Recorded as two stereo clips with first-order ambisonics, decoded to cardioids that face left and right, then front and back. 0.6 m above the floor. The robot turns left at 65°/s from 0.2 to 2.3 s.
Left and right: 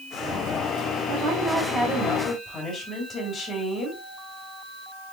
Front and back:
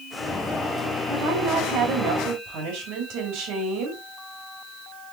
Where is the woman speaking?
125° right, 3 m; by 4.0 s 155° left, 3 m.